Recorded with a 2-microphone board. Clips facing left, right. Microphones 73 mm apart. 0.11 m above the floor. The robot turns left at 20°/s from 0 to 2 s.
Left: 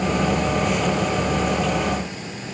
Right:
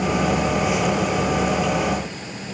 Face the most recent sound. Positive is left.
No sound to turn to.